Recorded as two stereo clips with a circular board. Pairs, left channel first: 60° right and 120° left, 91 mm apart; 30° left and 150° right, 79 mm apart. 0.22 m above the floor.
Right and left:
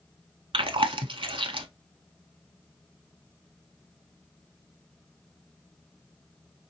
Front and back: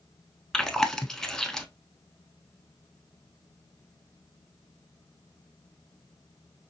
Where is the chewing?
115° left, 0.6 m.